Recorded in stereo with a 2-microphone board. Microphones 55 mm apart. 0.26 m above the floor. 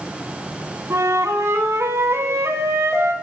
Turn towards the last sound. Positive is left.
turn(degrees=-65)  # may be behind; listen again after turning